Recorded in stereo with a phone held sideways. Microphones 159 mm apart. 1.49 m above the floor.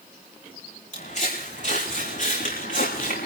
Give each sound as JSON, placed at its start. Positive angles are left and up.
{"t": 0.9, "sound": "footsteps", "side_deg": 50, "distance_m": 6.5}